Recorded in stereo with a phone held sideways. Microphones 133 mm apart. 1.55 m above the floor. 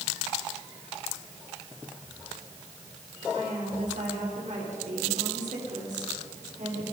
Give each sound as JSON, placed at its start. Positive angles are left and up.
{"t": 3.3, "sound": "a woman speaking", "side_deg": -70, "distance_m": 5.0}